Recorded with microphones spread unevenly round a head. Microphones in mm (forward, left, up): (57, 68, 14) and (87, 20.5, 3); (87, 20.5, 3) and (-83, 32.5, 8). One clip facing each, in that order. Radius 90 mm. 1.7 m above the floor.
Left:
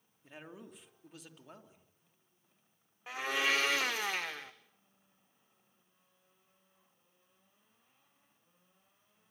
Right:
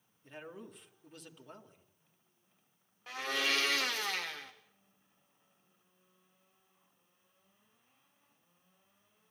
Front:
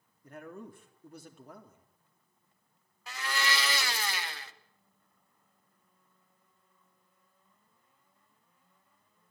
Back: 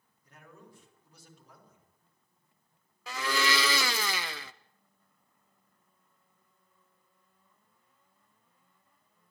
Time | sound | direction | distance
0.2 | a man speaking | 35° left | 3.5 m
3.1 | a blender | 150° right | 0.9 m